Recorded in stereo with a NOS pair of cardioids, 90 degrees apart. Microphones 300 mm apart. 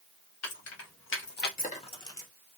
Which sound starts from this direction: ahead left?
Keys jangling, at 0.4 s.